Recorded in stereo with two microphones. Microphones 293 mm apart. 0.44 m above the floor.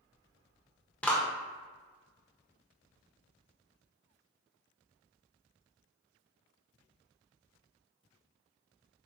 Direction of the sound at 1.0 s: 5° left (ahead or behind).